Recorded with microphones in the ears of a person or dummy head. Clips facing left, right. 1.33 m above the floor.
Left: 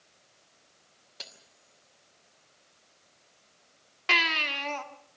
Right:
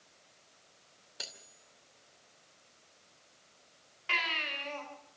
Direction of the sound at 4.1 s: 80° left.